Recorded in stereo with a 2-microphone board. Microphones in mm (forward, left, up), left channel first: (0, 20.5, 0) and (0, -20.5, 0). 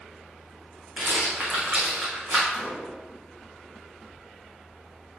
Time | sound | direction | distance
1.0 | a rattle | 40° right (ahead or behind) | 5 m
2.5 | a gunshot | 30° right (ahead or behind) | 3.5 m